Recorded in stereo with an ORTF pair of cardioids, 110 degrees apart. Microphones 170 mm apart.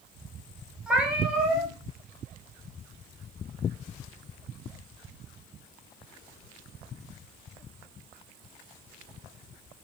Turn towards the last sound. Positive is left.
turn(degrees=-5)